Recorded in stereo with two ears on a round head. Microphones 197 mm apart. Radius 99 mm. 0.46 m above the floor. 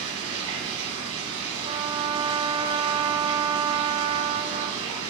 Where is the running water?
65° right (ahead or behind), 2.5 m.